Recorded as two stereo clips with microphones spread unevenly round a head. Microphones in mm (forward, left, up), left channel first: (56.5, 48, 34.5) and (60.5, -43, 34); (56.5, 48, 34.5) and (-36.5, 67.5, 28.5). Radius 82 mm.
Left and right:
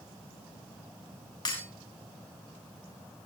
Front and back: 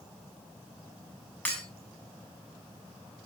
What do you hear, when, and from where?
1.4 s breaking glass: 65° left, 8 m